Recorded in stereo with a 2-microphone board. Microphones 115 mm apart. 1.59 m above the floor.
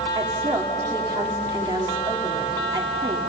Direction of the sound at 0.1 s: 35° right (ahead or behind).